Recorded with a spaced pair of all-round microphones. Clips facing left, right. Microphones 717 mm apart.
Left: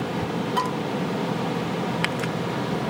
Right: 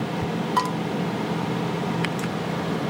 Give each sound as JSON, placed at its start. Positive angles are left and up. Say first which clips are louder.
{"t": 0.6, "sound": "dishes clattering", "louder": "even", "side_deg": -40, "distance_m": 1.0}